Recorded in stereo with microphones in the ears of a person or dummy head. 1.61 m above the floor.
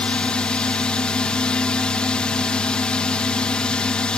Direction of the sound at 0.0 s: 5° left (ahead or behind).